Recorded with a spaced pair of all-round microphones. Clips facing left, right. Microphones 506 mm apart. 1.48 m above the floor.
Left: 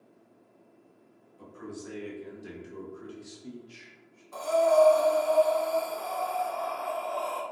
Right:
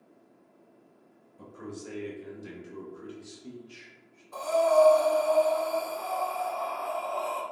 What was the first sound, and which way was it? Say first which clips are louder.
A man speaking: even; 60° right (ahead or behind).